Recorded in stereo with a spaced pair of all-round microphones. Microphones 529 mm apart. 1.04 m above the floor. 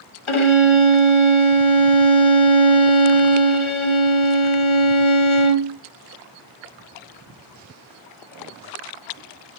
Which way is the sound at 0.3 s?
65° left (ahead or behind).